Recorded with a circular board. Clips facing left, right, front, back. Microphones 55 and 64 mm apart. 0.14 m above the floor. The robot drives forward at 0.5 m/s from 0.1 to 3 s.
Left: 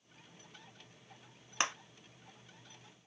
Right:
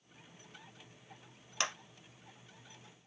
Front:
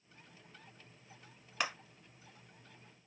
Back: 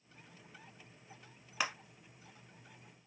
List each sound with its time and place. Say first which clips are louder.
1.6 s a clap: left 2 dB, even; 100° left, 0.9 m; by 1.7 s 110° left, 0.9 m